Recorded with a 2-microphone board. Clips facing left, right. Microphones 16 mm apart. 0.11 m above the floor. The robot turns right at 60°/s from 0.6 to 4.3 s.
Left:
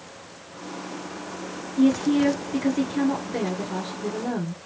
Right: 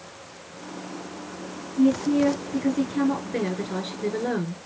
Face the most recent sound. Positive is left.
turn(degrees=-115)